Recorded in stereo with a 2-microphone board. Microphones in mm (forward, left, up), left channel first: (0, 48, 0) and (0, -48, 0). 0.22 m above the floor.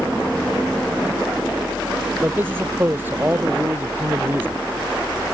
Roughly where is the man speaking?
Right.